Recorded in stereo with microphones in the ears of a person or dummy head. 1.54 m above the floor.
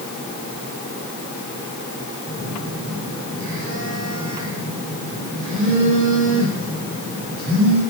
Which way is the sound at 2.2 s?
75° right (ahead or behind).